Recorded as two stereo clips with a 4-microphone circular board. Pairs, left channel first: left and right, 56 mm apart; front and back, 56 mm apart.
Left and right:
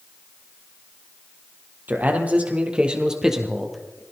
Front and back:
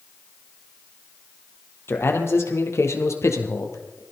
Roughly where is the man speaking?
Ahead right.